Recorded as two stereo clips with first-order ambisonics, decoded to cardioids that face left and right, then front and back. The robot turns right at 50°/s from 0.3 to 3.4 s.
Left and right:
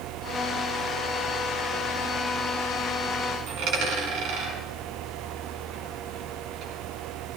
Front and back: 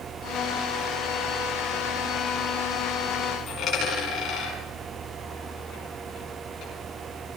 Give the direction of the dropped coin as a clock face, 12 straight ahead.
2 o'clock.